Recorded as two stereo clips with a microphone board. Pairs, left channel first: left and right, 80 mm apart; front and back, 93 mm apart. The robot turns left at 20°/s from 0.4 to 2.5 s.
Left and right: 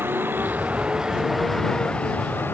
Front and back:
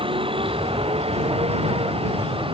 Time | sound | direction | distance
0.0 | a vehicle | 155° right | ?